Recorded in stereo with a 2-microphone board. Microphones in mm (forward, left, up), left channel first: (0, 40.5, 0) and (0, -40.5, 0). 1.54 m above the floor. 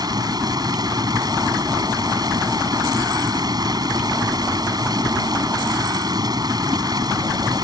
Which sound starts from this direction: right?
Running water, at 0.0 s.